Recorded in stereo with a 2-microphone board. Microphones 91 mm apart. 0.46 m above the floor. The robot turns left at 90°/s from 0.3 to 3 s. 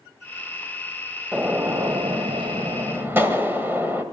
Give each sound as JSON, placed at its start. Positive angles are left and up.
{"t": 1.3, "sound": "a gunshot", "azimuth_deg": 0, "distance_m": 1.9}